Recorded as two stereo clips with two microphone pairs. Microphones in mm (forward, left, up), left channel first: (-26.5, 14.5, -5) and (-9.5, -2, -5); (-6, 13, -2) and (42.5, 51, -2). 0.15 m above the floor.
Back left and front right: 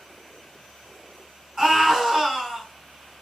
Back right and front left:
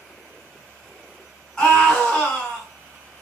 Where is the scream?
75° right, 1.1 m.